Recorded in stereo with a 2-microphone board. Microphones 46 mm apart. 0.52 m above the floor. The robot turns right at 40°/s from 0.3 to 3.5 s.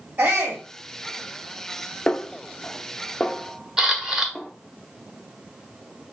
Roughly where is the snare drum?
Left.